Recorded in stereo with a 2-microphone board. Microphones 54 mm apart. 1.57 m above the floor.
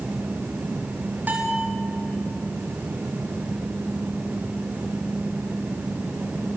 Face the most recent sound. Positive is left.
turn(degrees=-30)  # may be behind; listen again after turning